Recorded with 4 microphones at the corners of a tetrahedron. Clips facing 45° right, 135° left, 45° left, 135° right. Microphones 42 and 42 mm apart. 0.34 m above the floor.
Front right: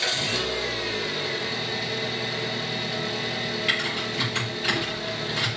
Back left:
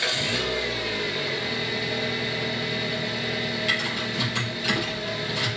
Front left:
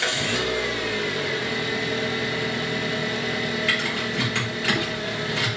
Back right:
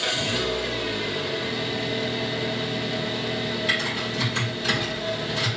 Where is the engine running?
55° left, 1.5 m.